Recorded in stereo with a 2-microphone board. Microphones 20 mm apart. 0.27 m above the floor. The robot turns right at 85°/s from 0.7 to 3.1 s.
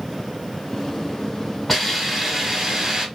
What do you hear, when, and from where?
1.7 s a hiss: 5° left (ahead or behind), 1.5 m; by 3.1 s 25° right (ahead or behind), 1.5 m